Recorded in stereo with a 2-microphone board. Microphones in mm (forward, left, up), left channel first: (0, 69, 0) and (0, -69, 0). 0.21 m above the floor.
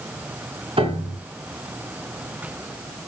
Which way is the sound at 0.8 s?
45° right (ahead or behind).